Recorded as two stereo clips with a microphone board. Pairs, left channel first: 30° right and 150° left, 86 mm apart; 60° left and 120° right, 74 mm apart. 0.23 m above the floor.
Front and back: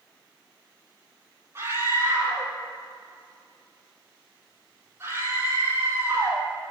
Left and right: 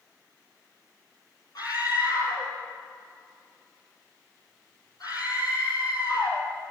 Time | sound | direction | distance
1.6 | a scream | 90° left | 7 m